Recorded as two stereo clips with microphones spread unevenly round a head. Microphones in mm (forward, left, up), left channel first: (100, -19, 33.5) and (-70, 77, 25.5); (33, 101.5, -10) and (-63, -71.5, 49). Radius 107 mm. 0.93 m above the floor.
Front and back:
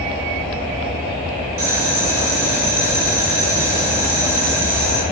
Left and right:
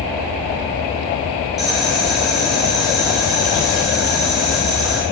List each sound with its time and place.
1.6 s boiling: 145° left, 2 m